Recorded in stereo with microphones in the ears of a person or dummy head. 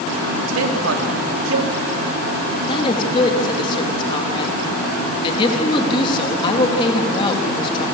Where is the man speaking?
80° right, 3.5 m.